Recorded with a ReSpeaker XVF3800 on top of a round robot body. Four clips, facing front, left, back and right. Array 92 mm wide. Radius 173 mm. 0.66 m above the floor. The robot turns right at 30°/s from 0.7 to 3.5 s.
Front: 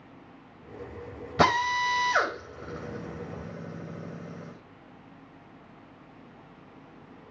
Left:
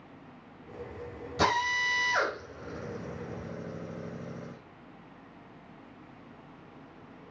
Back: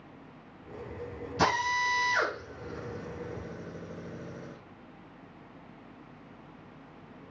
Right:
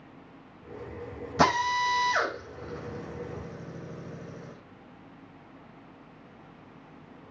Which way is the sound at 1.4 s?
20° right.